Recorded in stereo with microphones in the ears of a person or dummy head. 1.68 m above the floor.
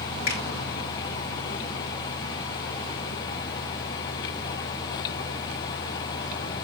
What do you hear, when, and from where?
0.3 s a finger snap: 60° left (ahead or behind), 2 m